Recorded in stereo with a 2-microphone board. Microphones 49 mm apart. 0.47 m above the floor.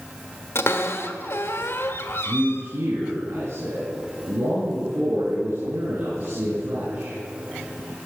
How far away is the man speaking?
About 5.5 m.